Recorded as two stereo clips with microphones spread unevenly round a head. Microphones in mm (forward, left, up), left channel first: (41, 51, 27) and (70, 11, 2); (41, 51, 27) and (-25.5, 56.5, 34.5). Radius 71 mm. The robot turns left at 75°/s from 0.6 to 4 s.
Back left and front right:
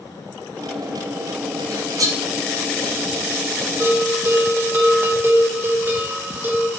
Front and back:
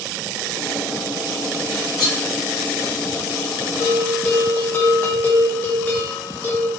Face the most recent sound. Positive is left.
turn(degrees=-65)